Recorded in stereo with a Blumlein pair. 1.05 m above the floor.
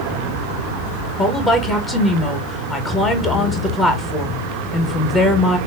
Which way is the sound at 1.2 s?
15° left.